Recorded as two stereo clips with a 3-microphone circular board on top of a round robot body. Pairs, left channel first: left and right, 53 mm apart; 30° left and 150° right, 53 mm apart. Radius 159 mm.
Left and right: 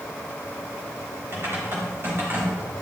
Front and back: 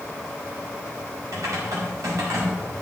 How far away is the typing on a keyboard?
About 4.5 m.